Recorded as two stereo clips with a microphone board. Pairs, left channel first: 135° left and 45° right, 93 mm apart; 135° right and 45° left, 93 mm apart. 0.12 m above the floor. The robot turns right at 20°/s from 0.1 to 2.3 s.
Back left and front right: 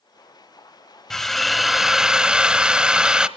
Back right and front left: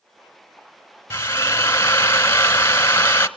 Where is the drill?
140° right, 0.9 m; by 3.3 s 115° right, 0.9 m.